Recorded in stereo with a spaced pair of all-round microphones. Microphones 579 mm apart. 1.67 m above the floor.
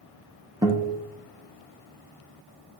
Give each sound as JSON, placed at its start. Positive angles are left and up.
{"t": 0.6, "sound": "a guitar", "side_deg": -5, "distance_m": 0.6}